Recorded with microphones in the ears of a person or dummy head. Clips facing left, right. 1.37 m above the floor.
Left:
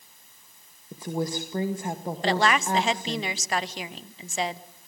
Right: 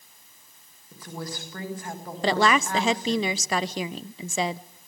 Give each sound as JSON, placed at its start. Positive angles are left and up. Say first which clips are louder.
{"t": 0.9, "sound": "a woman speaking", "louder": "left 8 dB", "side_deg": 20, "distance_m": 1.7}
{"t": 2.2, "sound": "a woman speaking", "louder": "right 2 dB", "side_deg": -75, "distance_m": 0.7}